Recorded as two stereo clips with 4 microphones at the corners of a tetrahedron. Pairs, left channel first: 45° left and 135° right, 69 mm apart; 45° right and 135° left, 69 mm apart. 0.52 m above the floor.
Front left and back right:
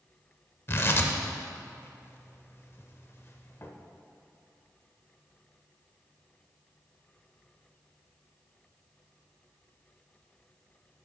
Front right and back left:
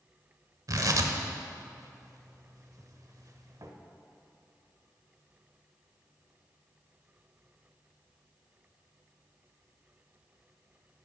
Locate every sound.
0.7 s tearing paper: 100° left, 0.6 m